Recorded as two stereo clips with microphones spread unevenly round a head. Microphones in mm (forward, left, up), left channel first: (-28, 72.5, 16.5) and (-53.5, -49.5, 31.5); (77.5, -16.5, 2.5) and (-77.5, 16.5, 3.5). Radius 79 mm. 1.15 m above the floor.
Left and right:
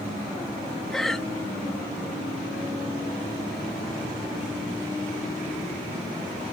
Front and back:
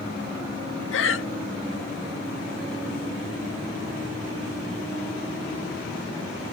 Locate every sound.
0.9 s breathing: 10° right